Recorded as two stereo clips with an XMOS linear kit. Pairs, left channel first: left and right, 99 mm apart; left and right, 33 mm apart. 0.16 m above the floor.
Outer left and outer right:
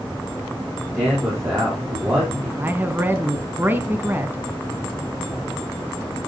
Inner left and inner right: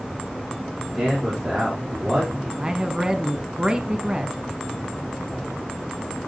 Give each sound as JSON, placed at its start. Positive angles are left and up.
{"t": 0.9, "sound": "a man speaking", "side_deg": -20, "distance_m": 7.0}
{"t": 2.6, "sound": "a man speaking", "side_deg": -20, "distance_m": 1.1}